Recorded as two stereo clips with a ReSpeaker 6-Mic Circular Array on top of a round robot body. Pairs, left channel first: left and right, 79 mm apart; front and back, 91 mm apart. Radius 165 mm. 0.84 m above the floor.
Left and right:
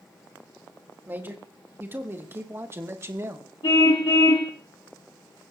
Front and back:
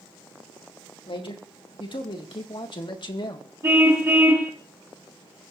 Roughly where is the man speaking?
Ahead right.